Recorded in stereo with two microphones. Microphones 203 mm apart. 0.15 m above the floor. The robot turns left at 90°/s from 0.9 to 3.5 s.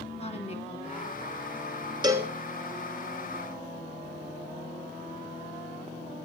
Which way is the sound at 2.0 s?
20° right (ahead or behind).